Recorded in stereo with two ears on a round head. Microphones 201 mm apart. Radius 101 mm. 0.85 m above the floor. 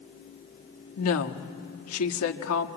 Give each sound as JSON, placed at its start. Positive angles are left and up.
{"t": 1.0, "sound": "a woman speaking", "side_deg": 70, "distance_m": 1.4}